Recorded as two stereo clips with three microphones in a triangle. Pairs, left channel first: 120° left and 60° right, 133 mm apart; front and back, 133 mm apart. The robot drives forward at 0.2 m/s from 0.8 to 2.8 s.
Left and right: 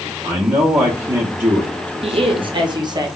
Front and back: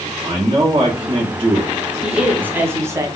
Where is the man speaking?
120° right, 0.6 m; by 2.5 s 140° right, 0.8 m.